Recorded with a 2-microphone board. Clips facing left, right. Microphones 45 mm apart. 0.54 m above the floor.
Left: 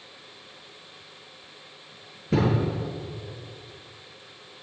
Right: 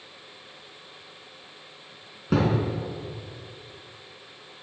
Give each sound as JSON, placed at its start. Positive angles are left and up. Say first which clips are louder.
{"t": 2.3, "sound": "a thud", "louder": "even", "side_deg": -85, "distance_m": 2.5}